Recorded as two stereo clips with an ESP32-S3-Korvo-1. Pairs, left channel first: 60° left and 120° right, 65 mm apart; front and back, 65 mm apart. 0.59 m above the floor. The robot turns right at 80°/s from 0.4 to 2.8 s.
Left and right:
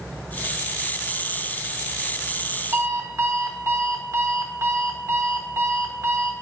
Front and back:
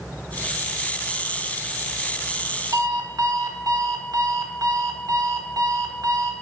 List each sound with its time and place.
2.7 s an alarm clock: 170° right, 0.8 m; by 6.3 s 165° right, 0.8 m